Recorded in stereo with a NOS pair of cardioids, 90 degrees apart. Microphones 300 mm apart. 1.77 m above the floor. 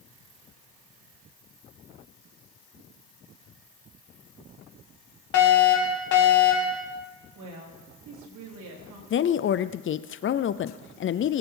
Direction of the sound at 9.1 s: 40° left.